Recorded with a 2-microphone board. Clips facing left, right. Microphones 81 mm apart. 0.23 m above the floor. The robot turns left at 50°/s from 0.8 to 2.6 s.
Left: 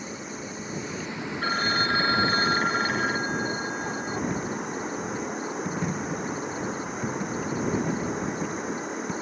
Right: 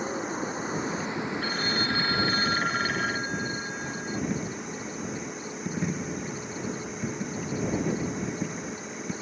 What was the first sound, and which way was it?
Running water, 135° right.